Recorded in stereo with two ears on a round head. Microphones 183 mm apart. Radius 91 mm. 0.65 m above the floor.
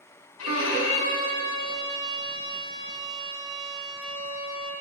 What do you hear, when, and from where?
0.4 s a violin: 75° left (ahead or behind), 5 m